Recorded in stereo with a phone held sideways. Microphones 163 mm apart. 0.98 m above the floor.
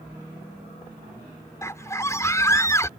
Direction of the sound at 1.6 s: 20° left (ahead or behind).